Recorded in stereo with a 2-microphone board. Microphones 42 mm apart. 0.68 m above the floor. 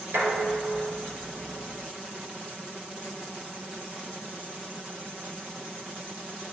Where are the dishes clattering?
75° right (ahead or behind), 6 m.